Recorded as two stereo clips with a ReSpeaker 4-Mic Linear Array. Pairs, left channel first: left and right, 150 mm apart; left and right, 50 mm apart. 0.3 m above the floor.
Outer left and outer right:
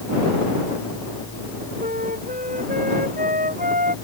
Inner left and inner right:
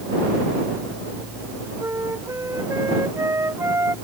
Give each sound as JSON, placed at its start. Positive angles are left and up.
{"t": 1.8, "sound": "a flute", "side_deg": -85}